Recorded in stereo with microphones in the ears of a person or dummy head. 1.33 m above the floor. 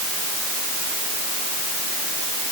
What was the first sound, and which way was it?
Only background noise.